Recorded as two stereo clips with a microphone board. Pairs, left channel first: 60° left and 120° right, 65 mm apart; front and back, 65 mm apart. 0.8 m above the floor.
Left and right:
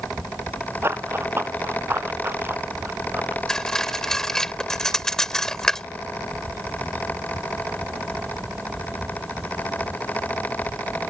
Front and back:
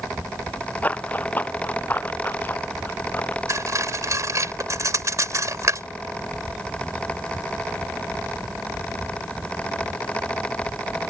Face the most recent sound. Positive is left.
turn(degrees=145)